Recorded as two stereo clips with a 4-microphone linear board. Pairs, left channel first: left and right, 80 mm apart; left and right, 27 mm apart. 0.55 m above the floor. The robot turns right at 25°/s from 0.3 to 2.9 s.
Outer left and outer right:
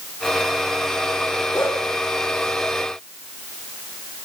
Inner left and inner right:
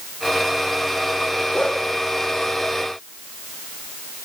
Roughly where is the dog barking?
Left.